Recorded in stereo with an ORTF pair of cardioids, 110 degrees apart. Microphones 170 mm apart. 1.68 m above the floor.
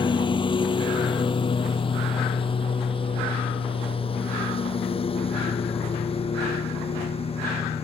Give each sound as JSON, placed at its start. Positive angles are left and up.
{"t": 0.0, "sound": "a lawn mower", "azimuth_deg": 30}